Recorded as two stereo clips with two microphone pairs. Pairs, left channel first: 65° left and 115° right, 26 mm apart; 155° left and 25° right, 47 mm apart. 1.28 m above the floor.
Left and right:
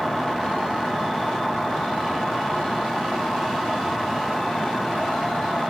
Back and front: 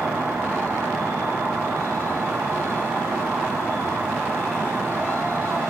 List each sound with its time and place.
0.0 s an insect: 15° right, 7.5 m